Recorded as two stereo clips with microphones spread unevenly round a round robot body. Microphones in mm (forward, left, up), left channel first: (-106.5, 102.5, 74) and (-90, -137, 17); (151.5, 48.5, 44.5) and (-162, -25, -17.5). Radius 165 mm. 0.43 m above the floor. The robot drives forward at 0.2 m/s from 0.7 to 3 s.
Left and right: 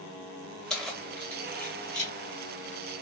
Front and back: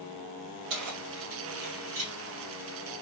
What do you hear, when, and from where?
0.7 s keys jangling: 175° right, 1.5 m